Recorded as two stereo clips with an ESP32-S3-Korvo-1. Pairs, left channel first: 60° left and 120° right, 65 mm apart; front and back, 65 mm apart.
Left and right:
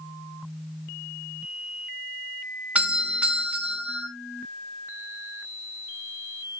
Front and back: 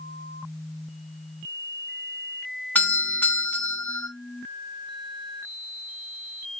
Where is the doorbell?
55° right, 3 m.